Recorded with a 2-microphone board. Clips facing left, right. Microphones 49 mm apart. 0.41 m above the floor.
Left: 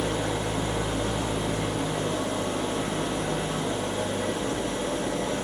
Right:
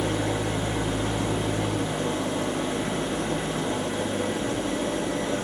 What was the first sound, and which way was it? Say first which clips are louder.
An engine running: right 1 dB; 40° right (ahead or behind).